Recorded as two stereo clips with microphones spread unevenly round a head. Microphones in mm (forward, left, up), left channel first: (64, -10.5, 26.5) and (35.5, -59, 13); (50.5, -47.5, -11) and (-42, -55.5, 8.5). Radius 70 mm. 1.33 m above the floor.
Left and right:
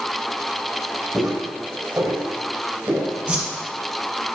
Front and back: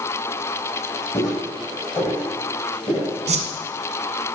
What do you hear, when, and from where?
1.1 s footsteps: 45° right, 4 m; by 3.1 s 40° right, 6 m
3.3 s a whoosh: 160° left, 1.0 m